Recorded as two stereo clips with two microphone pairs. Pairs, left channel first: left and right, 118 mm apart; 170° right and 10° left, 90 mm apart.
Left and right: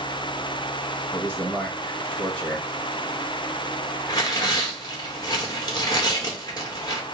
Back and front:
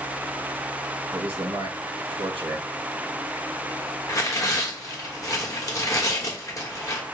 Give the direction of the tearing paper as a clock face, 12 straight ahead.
7 o'clock.